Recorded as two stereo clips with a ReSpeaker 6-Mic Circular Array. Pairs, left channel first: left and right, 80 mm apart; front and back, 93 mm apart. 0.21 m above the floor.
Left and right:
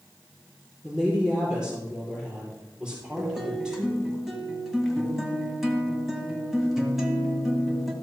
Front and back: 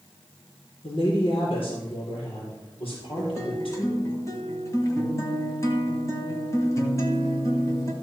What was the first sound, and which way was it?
A woman speaking, 10° right.